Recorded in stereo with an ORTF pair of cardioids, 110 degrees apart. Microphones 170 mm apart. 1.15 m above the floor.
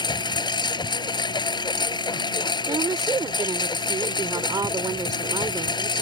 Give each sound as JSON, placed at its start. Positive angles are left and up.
{"t": 0.0, "sound": "a lawn mower", "azimuth_deg": 25}
{"t": 2.7, "sound": "a woman speaking", "azimuth_deg": -20}